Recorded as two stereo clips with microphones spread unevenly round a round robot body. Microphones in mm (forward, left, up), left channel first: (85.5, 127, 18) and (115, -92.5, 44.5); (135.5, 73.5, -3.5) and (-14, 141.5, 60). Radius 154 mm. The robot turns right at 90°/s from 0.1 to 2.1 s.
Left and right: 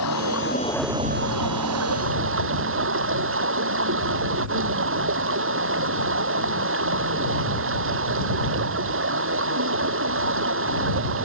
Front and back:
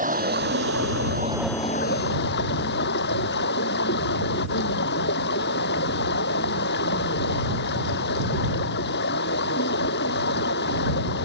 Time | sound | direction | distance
0.0 | running water | 120° left | ?